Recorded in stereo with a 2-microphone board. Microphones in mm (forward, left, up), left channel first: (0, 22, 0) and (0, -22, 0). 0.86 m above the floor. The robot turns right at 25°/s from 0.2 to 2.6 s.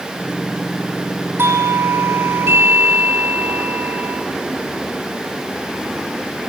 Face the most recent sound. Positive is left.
turn(degrees=-75)